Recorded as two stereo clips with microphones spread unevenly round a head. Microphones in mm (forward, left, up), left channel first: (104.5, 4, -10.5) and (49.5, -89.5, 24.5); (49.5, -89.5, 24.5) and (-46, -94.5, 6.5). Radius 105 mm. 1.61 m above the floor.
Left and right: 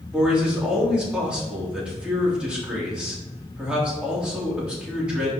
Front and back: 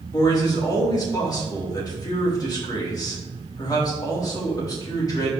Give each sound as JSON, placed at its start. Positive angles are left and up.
{"t": 0.1, "sound": "a man speaking", "azimuth_deg": -40, "distance_m": 3.5}